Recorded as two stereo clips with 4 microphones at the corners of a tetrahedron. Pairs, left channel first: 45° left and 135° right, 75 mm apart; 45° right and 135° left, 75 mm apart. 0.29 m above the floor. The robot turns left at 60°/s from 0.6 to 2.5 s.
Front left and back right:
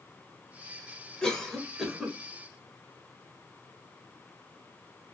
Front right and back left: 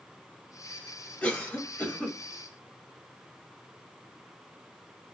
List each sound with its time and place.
1.2 s a cough: 15° right, 1.1 m; by 2.2 s 75° right, 1.1 m